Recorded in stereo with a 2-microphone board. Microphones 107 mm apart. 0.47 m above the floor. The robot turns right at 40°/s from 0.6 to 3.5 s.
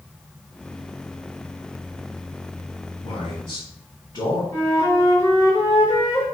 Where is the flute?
25° left (ahead or behind), 1.3 m.